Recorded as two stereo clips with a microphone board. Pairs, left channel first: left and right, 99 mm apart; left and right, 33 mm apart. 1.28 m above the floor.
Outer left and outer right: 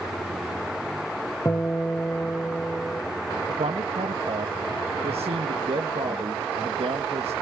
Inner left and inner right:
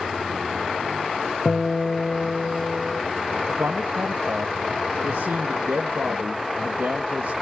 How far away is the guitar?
About 2 m.